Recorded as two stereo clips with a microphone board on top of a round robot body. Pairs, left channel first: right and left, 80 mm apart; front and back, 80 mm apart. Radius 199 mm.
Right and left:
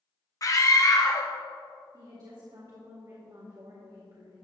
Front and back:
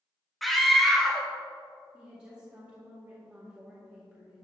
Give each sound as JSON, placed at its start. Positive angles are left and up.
{"t": 0.4, "sound": "a scream", "azimuth_deg": -90, "distance_m": 1.1}
{"t": 1.9, "sound": "a woman speaking", "azimuth_deg": 105, "distance_m": 2.0}